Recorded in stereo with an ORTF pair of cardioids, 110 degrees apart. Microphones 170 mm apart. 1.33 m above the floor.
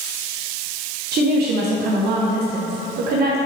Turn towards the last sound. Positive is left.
turn(degrees=-70)